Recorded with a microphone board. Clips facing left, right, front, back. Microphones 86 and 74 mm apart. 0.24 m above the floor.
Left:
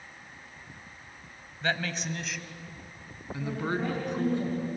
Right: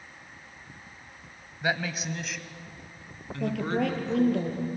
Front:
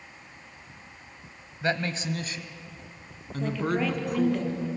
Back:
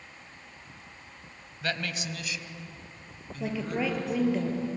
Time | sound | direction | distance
1.6 | a man speaking | 30° right | 1.4 m
3.4 | a woman speaking | 100° right | 5.5 m